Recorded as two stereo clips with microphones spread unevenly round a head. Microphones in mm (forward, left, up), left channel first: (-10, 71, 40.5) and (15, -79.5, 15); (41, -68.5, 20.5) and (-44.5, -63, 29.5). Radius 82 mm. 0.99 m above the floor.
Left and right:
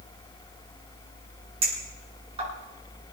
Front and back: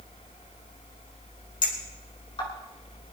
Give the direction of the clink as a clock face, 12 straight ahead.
1 o'clock.